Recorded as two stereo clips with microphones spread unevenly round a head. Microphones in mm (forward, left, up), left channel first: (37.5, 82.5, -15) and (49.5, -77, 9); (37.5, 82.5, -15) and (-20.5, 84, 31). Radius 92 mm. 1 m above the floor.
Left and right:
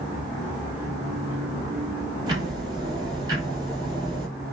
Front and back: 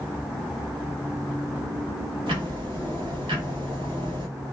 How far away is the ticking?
About 1.4 m.